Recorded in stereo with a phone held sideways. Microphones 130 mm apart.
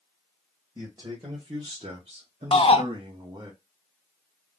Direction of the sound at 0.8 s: 30° right (ahead or behind).